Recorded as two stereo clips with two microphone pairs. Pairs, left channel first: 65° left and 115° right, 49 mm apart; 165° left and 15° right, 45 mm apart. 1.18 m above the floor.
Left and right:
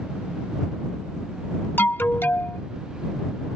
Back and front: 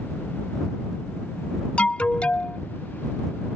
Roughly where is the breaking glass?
No breaking glass in this recording.